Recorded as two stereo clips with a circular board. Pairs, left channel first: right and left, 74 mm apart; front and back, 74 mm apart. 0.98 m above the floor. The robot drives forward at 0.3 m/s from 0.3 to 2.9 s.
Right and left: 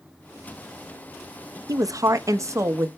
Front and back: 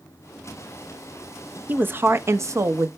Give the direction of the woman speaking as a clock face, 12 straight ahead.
8 o'clock.